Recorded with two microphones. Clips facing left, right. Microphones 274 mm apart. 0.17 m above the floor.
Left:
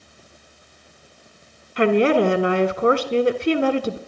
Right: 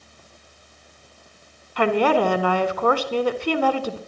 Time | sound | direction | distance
1.8 | a woman speaking | 25° left (ahead or behind) | 1.2 m